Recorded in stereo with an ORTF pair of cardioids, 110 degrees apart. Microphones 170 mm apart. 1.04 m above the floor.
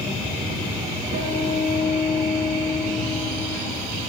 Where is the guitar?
70° right, 3 m.